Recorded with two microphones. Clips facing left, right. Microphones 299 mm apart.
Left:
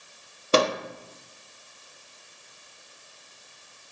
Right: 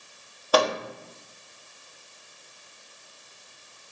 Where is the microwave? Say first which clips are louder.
Left 1 dB; 30° left (ahead or behind), 0.8 m.